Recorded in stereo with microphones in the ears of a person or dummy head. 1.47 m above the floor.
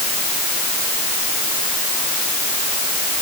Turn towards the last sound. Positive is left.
No sound to turn to.